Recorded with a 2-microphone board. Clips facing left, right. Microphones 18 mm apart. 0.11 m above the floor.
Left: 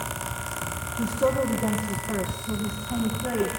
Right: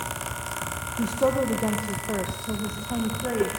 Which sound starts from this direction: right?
A woman speaking, at 1.0 s.